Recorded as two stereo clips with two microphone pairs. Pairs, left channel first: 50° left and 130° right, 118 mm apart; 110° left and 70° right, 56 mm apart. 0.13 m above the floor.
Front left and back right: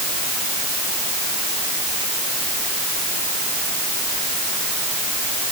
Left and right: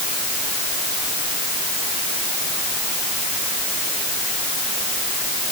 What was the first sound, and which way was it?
Only background noise.